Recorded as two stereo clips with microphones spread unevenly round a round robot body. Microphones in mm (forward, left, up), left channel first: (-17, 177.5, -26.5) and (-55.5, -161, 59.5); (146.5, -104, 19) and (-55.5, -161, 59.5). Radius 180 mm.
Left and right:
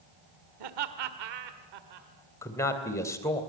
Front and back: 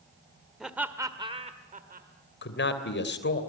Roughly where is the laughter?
Right.